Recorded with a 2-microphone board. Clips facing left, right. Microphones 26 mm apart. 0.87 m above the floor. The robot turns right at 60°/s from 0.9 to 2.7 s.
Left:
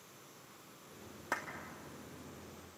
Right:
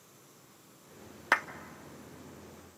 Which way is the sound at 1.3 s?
75° right (ahead or behind).